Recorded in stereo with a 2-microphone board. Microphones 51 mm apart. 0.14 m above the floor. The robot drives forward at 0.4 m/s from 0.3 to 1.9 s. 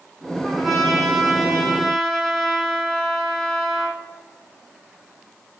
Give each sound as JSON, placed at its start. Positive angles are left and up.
{"t": 0.4, "sound": "a trumpet", "side_deg": 0, "distance_m": 2.5}